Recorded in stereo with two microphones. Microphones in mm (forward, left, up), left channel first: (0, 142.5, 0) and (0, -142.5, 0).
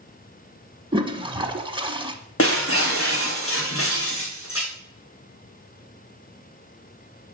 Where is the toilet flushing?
15° right (ahead or behind), 1.1 m.